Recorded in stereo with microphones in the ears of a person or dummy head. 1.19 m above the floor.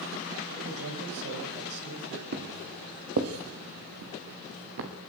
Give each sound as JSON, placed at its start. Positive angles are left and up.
{"t": 0.6, "sound": "a man speaking", "side_deg": -70, "distance_m": 7.5}
{"t": 2.3, "sound": "footsteps", "side_deg": -60, "distance_m": 3.0}